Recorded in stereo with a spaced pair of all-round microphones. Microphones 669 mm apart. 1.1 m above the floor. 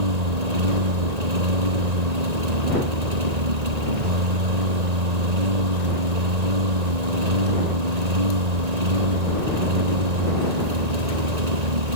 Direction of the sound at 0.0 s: 70° right (ahead or behind).